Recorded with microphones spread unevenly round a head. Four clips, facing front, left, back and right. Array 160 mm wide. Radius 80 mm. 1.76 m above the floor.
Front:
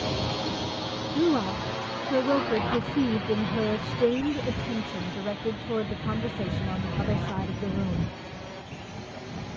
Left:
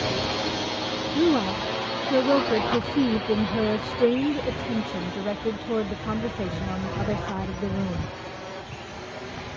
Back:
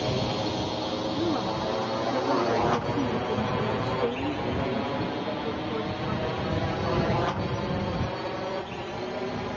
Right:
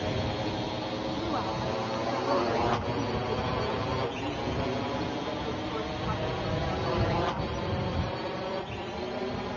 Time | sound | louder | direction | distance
0.0 | a drone | left 4 dB, back 2 dB | 135° left | ?
1.1 | a woman speaking | left 13 dB, front 6 dB | 70° left | ?